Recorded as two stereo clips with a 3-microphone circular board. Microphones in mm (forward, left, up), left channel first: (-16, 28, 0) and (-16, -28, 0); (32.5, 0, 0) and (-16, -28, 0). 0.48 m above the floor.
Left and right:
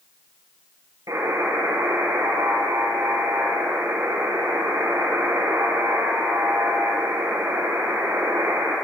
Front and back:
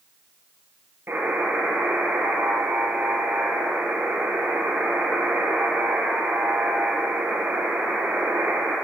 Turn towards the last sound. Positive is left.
turn(degrees=-100)